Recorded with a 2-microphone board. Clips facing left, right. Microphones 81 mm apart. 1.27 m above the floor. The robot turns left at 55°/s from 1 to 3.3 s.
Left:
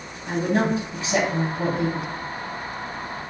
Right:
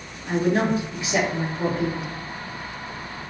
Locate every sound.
0.3 s a woman speaking: 145° left, 1.0 m; by 2.1 s 85° left, 1.0 m